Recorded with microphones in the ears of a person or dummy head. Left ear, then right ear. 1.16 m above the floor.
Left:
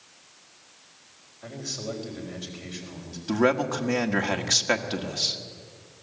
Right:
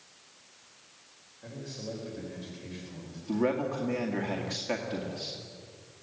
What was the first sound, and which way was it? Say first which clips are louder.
A man speaking: left 7 dB; 30° left (ahead or behind).